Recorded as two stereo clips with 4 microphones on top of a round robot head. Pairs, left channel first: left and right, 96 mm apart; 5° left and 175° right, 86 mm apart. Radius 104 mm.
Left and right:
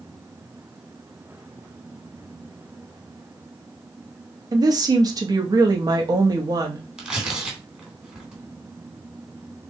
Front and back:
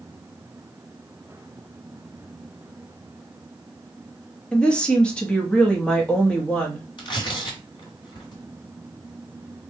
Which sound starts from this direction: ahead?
Tearing paper, at 7.0 s.